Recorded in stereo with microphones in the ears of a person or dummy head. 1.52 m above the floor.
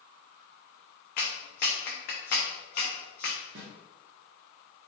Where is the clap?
50° left (ahead or behind), 0.6 m.